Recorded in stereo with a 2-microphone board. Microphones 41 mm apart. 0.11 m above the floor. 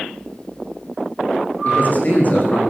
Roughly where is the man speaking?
Left.